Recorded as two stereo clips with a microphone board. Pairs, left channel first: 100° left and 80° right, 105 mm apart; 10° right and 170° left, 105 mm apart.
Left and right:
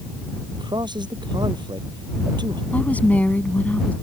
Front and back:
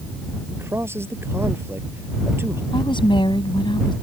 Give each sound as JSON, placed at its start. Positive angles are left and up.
{"t": 0.5, "sound": "a man speaking", "azimuth_deg": -125}
{"t": 2.7, "sound": "a woman speaking", "azimuth_deg": 25}